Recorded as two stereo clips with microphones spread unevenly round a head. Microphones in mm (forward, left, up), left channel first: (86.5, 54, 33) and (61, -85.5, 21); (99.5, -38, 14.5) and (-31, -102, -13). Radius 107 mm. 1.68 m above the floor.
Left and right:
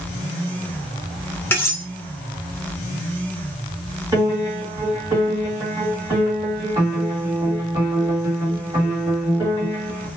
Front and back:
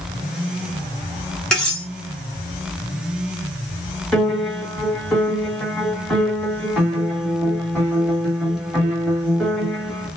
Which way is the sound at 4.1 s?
45° right.